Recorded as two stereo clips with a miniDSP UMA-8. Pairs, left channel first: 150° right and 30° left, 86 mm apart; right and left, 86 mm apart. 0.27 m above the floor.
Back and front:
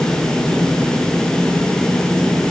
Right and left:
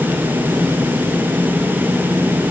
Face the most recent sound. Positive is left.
No sound to turn to.